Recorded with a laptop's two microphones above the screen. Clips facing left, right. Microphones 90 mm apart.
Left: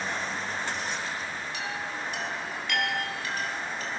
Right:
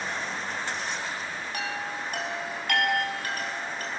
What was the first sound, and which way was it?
A chime, 50° right (ahead or behind).